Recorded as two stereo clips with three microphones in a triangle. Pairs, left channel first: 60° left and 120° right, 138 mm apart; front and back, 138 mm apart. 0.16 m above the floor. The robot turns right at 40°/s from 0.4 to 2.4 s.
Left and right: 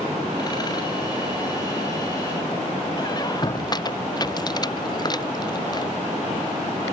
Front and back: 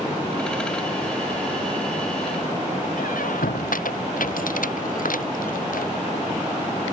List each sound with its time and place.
3.0 s a squeak: straight ahead